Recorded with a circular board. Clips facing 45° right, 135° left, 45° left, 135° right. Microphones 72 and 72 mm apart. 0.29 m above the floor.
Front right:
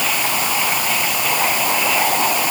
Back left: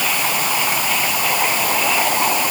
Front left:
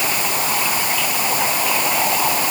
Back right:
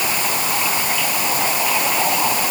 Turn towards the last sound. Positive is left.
No sound to turn to.